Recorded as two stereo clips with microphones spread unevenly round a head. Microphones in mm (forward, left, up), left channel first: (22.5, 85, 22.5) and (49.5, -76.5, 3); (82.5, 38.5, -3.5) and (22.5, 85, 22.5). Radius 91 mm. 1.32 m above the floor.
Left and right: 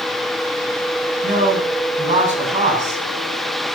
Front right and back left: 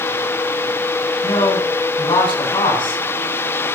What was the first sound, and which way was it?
A man speaking, 35° right.